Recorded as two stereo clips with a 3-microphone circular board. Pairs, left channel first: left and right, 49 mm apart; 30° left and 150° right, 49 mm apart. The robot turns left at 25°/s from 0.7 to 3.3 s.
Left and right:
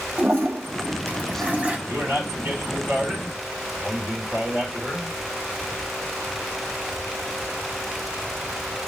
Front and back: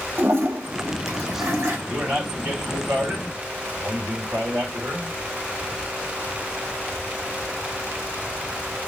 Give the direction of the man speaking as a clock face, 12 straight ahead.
4 o'clock.